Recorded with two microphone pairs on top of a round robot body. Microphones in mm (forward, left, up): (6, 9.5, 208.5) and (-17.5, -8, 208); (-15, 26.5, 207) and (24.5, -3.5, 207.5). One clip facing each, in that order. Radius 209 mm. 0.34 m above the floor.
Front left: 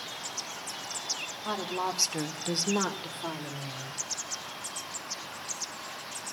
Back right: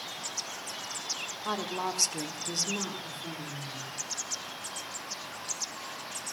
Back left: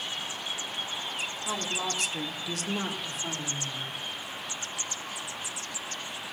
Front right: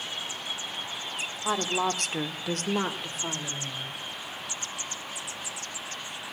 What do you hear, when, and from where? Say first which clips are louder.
1.4 s a woman speaking: front left 1 dB, front right 7 dB; 60° right, 1.9 m; by 4.0 s 20° left, 3 m